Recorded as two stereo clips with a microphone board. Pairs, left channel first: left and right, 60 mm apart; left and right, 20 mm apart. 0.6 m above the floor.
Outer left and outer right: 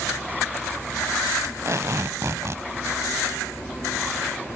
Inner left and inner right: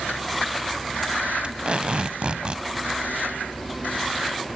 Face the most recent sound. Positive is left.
turn(degrees=-50)  # may be behind; listen again after turning